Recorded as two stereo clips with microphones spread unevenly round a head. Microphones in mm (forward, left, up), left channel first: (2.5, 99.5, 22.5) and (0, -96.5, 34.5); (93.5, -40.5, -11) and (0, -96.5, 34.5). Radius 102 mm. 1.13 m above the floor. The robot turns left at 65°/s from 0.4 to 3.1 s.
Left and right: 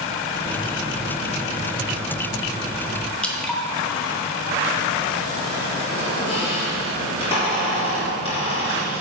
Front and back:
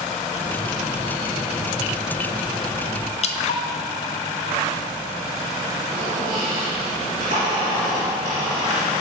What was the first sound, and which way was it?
Dripping, 5° left.